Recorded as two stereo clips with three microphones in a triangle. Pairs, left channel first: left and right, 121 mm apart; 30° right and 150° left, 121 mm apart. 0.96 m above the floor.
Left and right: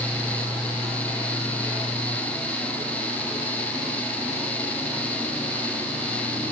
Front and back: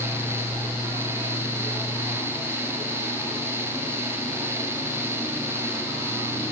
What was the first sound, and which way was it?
Only background noise.